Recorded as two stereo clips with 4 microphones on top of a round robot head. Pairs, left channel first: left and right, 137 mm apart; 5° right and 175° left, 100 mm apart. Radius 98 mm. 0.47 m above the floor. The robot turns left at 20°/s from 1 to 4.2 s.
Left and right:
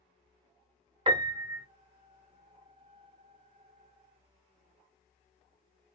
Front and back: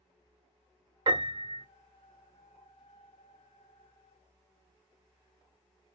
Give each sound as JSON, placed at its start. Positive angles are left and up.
{"t": 1.1, "sound": "a piano", "azimuth_deg": -145, "distance_m": 1.0}